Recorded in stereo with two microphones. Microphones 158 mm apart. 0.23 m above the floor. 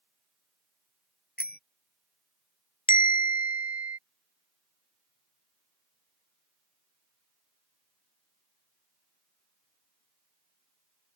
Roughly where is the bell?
Left.